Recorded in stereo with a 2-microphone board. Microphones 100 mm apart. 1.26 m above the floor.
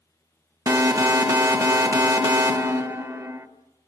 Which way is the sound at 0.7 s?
35° right (ahead or behind).